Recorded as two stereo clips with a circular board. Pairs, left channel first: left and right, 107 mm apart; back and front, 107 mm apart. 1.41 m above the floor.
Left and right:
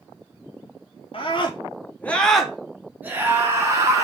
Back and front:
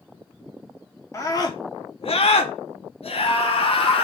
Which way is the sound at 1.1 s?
120° left.